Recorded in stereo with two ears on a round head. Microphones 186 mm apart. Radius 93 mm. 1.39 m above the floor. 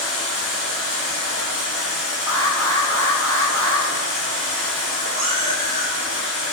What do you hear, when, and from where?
0.0 s running water: 5° right (ahead or behind), 1.7 m
2.3 s an alarm: 10° left (ahead or behind), 0.8 m
5.2 s a cat meowing: 30° right (ahead or behind), 0.9 m